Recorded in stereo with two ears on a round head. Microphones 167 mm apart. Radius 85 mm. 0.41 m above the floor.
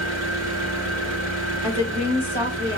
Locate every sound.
0.0 s an engine running: 70° right (ahead or behind), 1.2 m
1.6 s a woman speaking: 10° right (ahead or behind), 1.9 m